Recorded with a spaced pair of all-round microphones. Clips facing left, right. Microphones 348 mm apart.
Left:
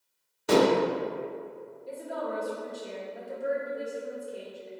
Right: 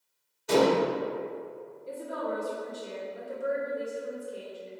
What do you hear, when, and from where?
0.5 s dishes clattering: 80° left, 0.6 m
1.9 s a woman speaking: 10° right (ahead or behind), 1.5 m